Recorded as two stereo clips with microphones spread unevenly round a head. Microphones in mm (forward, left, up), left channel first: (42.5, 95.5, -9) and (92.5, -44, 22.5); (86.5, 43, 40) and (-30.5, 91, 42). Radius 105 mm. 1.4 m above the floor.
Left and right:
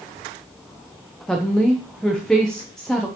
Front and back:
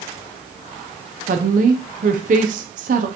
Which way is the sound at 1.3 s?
165° right.